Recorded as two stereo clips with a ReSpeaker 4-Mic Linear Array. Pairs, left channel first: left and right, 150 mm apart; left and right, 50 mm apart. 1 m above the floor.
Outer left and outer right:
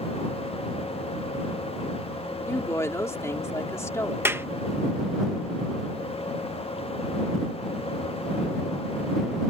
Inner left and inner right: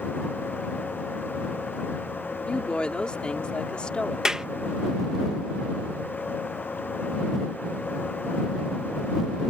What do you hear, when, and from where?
2.5 s a woman speaking: 20° left (ahead or behind)
4.2 s a clap: 15° right (ahead or behind)